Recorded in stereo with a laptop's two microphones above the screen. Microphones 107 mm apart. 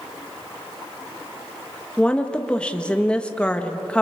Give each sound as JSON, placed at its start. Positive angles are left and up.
{"t": 2.0, "sound": "a woman speaking", "side_deg": 10, "distance_m": 1.4}